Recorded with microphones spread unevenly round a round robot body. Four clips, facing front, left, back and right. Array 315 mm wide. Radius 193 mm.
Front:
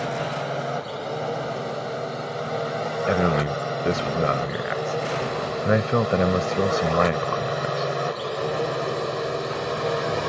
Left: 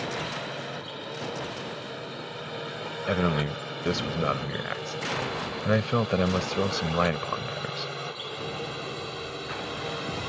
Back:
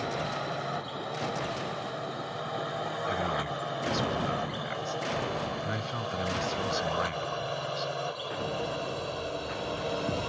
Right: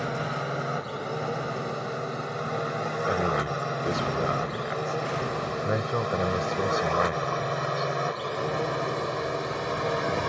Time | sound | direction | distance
0.0 | a drone | 65° right | ?
3.1 | a man speaking | 25° left | ?